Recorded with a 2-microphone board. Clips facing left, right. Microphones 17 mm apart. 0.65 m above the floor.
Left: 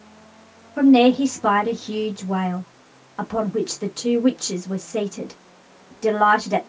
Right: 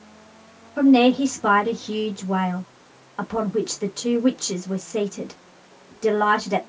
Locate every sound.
0.8 s a woman speaking: centre (ahead or behind), 0.8 m